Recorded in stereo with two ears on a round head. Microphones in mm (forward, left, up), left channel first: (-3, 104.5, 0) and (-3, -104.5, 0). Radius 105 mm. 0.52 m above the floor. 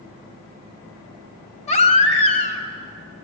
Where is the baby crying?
30° left (ahead or behind), 2 m.